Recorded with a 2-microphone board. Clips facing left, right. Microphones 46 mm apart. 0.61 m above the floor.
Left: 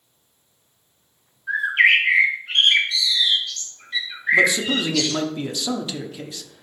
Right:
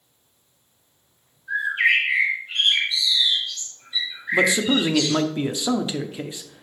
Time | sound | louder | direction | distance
1.5 | a bird | left 3 dB | 75° left (ahead or behind) | 1.8 m
4.3 | a man speaking | left 1 dB | 20° right (ahead or behind) | 0.8 m